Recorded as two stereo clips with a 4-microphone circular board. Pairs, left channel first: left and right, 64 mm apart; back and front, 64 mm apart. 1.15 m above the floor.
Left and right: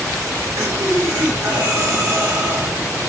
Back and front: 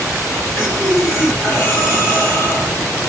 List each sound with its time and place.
0.6 s breathing: 120° right, 1.8 m